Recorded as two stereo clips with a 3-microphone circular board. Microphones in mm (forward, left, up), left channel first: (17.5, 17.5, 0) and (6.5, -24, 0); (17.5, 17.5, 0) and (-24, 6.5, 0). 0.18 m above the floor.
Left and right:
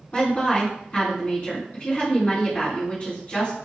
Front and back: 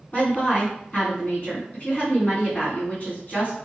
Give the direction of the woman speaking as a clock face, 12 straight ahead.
10 o'clock.